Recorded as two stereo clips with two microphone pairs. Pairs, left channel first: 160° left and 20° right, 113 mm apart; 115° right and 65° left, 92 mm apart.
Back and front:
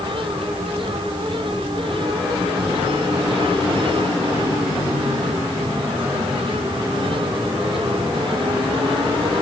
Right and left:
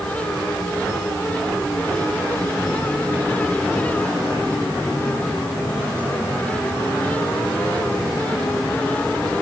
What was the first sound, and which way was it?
Only background noise.